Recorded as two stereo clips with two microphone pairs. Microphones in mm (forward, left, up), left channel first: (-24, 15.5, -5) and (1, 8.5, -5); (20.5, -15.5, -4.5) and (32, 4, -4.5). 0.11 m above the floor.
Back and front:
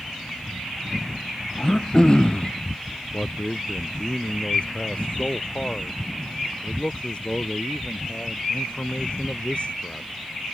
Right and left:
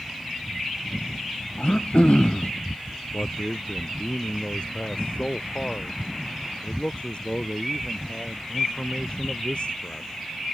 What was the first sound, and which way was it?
Throat clearing, 145° right.